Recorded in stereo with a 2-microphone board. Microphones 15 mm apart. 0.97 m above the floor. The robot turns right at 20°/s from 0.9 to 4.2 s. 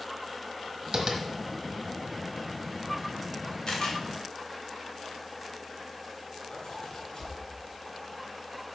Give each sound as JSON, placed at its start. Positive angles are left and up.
{"t": 0.9, "sound": "tapping", "side_deg": -55, "distance_m": 1.4}
{"t": 3.7, "sound": "a camera shutter", "side_deg": 60, "distance_m": 2.5}
{"t": 6.5, "sound": "a zipper", "side_deg": 65, "distance_m": 3.5}